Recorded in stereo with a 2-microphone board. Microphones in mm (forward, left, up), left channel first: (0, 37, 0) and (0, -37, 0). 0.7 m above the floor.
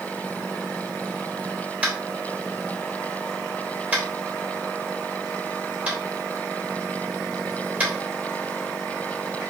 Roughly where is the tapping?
Centre.